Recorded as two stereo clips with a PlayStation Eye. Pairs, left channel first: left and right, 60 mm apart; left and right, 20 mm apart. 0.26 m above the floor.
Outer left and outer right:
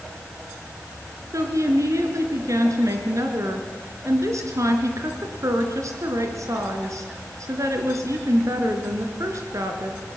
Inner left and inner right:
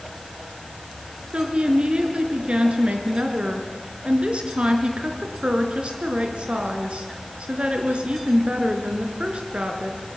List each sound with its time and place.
1.3 s a woman speaking: 65° right (ahead or behind), 4 m